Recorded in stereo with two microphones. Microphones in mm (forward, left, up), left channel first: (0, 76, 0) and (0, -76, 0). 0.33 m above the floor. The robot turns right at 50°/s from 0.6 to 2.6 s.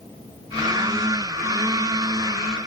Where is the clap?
No clap in this recording.